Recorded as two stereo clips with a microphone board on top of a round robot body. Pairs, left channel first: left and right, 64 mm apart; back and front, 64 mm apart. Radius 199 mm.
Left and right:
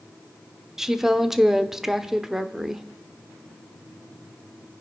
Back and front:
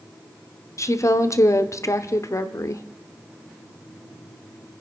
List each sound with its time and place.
0.8 s a woman speaking: 170° right, 1.2 m